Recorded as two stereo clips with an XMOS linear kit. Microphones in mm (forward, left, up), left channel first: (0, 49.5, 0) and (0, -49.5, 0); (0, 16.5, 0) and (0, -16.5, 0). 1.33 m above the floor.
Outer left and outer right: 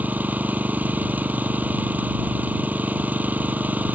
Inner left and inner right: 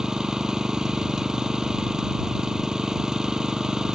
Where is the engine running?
15° right (ahead or behind).